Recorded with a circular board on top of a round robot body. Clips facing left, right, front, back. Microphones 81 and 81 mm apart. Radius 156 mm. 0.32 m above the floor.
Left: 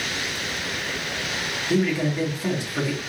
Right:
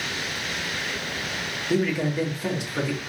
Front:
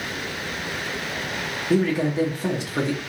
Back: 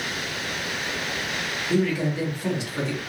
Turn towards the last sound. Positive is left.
turn(degrees=-20)